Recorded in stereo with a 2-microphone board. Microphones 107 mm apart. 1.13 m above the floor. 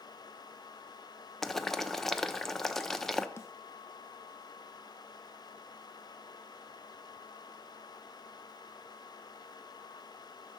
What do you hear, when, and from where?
1.4 s boiling: 5° left (ahead or behind), 0.6 m
3.4 s a snare drum: 25° left (ahead or behind), 0.5 m